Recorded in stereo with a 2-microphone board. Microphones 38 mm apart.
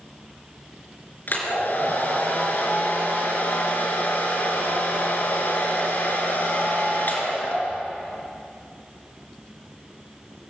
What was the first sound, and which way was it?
A hair dryer, 50° left (ahead or behind).